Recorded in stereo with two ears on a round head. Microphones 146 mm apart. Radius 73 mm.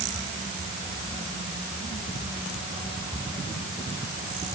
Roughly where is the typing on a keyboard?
I don't hear typing on a keyboard.